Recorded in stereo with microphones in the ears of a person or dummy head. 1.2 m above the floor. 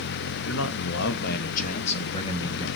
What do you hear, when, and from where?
0.5 s a man speaking: 85° left, 1.2 m; by 2.7 s 25° left (ahead or behind), 1.6 m